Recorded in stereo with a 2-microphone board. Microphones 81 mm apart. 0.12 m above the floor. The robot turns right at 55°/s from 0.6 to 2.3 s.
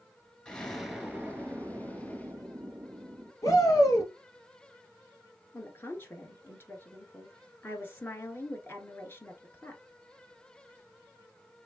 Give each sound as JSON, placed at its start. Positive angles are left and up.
{"t": 0.5, "sound": "an explosion", "azimuth_deg": 165, "distance_m": 1.0}
{"t": 3.4, "sound": "a shout", "side_deg": 50, "distance_m": 2.0}
{"t": 5.5, "sound": "a woman speaking", "side_deg": 30, "distance_m": 1.4}